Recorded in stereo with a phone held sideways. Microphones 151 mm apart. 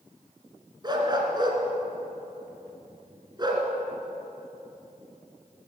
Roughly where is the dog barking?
Right.